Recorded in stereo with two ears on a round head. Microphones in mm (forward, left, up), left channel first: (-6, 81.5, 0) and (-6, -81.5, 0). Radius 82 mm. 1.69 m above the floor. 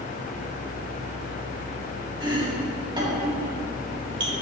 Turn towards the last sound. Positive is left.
turn(degrees=-25)  # may be behind; listen again after turning